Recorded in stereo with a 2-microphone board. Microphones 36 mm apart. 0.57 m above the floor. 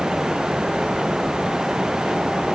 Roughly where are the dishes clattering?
No dishes clattering in this recording.